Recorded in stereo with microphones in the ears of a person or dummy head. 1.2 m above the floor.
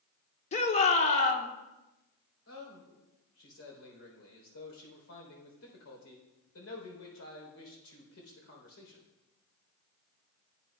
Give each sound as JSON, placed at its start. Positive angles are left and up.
{"t": 0.5, "sound": "a shout", "side_deg": 40, "distance_m": 1.3}
{"t": 2.5, "sound": "a man speaking", "side_deg": 90, "distance_m": 3.5}